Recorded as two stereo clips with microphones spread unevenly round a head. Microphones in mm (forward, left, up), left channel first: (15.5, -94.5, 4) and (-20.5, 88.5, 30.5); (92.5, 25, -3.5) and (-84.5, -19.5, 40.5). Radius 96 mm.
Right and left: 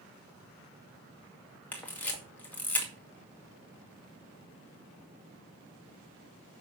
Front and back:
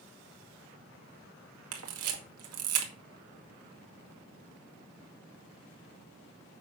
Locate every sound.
1.7 s a camera shutter: 160° right, 2 m